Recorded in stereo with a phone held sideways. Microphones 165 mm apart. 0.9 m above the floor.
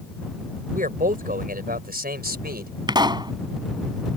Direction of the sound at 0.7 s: 55° right (ahead or behind).